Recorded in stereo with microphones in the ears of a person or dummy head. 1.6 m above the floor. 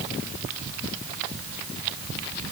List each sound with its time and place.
Only background noise.